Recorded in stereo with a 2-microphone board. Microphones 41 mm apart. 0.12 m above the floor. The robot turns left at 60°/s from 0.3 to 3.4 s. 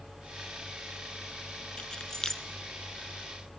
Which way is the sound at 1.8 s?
25° left (ahead or behind).